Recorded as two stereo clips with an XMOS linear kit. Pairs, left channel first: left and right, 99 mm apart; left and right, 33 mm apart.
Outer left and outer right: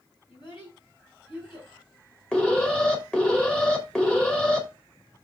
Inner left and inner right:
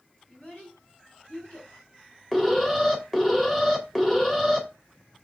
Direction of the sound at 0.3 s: 50° left (ahead or behind).